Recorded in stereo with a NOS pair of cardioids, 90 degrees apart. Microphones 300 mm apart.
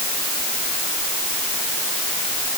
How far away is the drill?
I don't hear a drill.